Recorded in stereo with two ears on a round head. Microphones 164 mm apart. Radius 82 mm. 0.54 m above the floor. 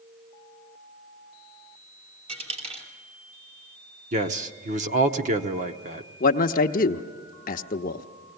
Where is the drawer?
I don't hear a drawer.